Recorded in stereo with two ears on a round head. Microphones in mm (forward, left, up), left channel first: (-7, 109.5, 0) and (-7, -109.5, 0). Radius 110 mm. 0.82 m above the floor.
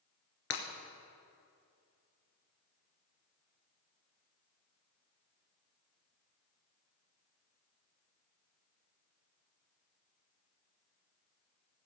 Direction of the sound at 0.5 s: 65° left (ahead or behind).